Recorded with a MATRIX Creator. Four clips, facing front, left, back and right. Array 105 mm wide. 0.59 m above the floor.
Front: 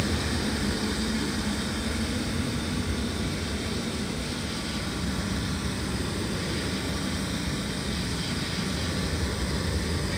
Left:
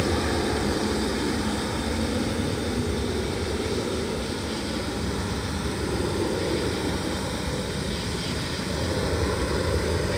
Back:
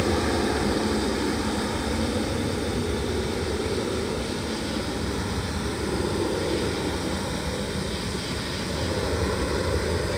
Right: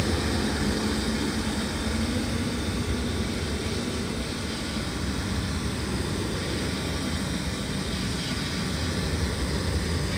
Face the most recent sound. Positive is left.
turn(degrees=135)